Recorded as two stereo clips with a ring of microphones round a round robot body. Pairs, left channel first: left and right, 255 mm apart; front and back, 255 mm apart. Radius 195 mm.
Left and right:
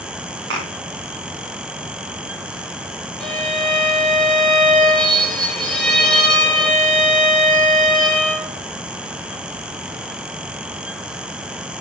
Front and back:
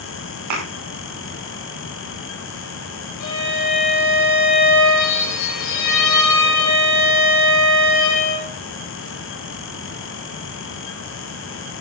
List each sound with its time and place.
0.5 s a thud: 150° right, 6.5 m
3.2 s a violin: straight ahead, 5 m